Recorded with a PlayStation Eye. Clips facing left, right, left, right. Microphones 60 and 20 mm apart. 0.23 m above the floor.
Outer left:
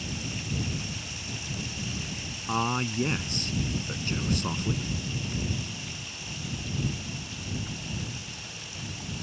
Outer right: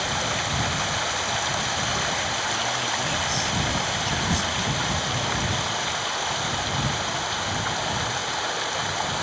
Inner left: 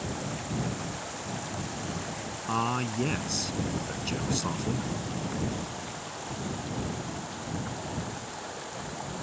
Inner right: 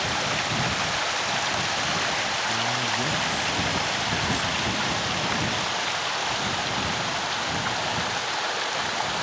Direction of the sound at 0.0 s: 80° right.